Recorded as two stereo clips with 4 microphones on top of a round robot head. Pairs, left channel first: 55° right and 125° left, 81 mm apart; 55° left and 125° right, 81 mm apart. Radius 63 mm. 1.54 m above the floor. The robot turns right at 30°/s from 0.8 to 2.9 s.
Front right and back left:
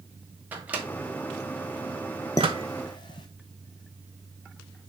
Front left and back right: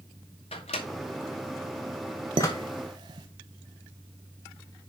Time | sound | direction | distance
0.5 | a microwave | 55° left | 0.9 m
2.4 | dishes clattering | 105° right | 0.8 m